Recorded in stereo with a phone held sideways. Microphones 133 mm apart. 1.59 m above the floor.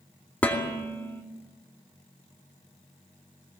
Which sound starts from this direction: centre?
Dishes clattering, at 0.4 s.